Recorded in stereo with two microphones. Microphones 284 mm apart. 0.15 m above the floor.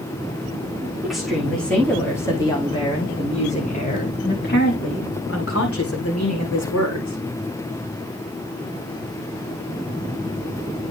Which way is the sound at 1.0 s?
Centre (ahead or behind).